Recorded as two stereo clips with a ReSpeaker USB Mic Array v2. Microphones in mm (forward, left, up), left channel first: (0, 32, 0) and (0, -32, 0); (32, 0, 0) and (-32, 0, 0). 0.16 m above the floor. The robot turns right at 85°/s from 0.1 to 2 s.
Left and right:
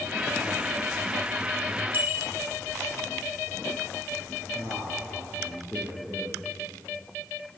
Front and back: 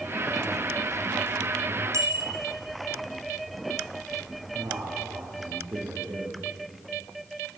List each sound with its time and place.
1.9 s a bicycle bell: 150° right, 2.5 m; by 2.3 s 145° right, 2.5 m
4.5 s a man speaking: 160° right, 6 m